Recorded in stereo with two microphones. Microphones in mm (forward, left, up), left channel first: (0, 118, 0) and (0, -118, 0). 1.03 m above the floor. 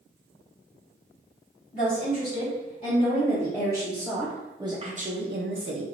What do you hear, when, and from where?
1.7 s a woman speaking: 35° left (ahead or behind), 1.8 m; by 5.8 s 65° right (ahead or behind), 0.7 m